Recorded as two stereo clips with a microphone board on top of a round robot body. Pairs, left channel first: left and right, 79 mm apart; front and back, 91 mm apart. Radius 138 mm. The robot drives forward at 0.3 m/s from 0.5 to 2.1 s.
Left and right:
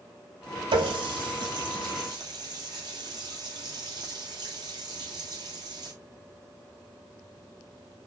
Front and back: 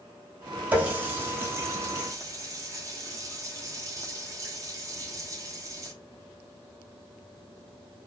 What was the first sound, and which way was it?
A running tap, 105° right.